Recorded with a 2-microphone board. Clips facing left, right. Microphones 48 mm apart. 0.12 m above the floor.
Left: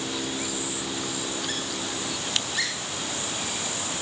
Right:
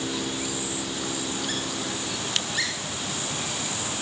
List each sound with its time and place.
Only background noise.